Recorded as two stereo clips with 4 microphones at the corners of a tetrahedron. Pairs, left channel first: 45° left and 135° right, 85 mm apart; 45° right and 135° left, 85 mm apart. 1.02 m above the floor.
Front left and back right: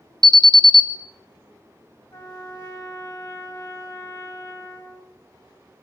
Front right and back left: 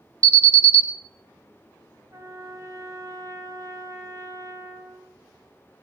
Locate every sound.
0.2 s an alarm: 115° right, 0.7 m
2.1 s a trumpet: 90° left, 1.6 m